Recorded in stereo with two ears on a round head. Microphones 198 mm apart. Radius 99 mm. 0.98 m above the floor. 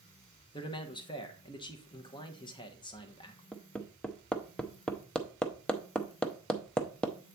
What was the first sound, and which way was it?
A man speaking, 20° left (ahead or behind).